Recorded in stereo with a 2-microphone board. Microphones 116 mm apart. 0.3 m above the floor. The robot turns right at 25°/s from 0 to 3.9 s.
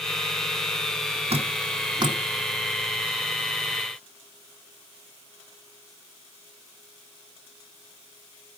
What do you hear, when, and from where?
1.3 s dripping: 55° right (ahead or behind), 2 m; by 2.2 s 40° right (ahead or behind), 2 m